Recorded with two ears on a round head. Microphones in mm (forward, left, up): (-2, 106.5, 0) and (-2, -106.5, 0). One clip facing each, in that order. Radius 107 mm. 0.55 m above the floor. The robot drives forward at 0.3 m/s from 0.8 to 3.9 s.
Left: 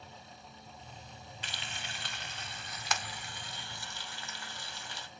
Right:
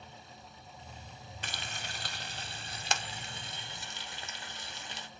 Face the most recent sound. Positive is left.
turn(degrees=-20)  # may be behind; listen again after turning